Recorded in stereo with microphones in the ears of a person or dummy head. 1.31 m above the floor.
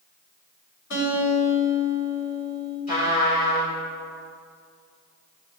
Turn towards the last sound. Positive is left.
turn(degrees=45)  # may be behind; listen again after turning